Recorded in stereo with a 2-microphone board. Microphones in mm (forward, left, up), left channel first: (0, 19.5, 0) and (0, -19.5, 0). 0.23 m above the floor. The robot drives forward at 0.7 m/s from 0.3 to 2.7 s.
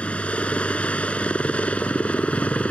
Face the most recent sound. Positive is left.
turn(degrees=40)  # may be behind; listen again after turning